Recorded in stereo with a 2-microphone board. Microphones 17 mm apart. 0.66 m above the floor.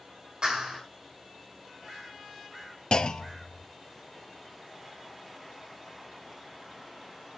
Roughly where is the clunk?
Left.